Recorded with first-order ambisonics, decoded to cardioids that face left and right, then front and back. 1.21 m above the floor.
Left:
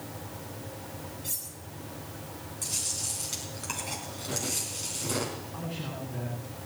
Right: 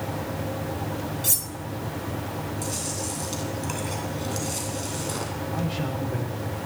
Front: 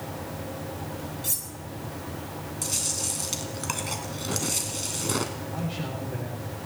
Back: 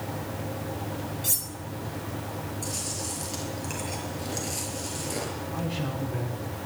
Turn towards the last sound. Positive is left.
turn(degrees=-80)